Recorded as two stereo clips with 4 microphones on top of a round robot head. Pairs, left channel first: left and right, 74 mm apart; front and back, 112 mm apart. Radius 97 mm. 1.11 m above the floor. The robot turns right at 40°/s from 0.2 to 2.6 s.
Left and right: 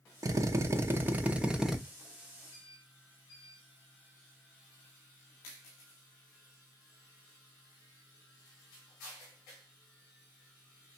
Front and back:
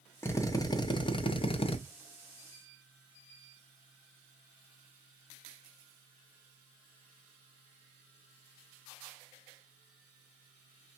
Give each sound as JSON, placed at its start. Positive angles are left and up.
{"t": 0.2, "sound": "a drill", "azimuth_deg": -65, "distance_m": 0.6}